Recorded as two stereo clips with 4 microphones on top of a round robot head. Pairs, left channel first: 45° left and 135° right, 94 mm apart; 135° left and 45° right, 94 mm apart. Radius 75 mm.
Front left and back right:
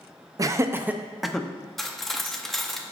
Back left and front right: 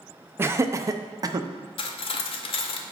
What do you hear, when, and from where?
0.4 s laughter: 100° right, 0.8 m; by 1.5 s 30° right, 0.7 m
1.8 s cutlery clinking: 130° left, 0.6 m